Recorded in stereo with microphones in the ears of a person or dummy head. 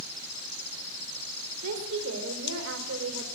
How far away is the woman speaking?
About 3.5 m.